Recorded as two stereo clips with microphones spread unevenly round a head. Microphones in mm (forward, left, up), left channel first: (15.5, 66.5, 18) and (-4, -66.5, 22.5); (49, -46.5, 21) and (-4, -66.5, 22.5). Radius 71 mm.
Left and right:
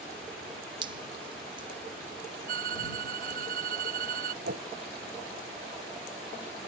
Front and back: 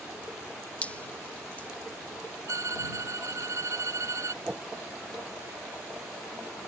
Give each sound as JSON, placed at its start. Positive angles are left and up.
{"t": 0.8, "sound": "dripping", "azimuth_deg": -40}
{"t": 2.5, "sound": "a violin", "azimuth_deg": -130}
{"t": 4.4, "sound": "a whoosh", "azimuth_deg": -85}